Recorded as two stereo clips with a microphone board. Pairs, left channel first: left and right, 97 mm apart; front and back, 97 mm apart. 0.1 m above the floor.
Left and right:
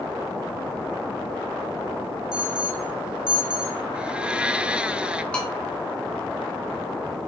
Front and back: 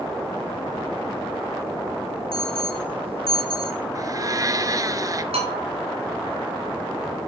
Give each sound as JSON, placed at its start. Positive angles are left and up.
{"t": 2.3, "sound": "an alarm", "azimuth_deg": -170, "distance_m": 4.0}
{"t": 4.0, "sound": "a blender", "azimuth_deg": -165, "distance_m": 0.8}
{"t": 5.3, "sound": "a bell", "azimuth_deg": 170, "distance_m": 6.0}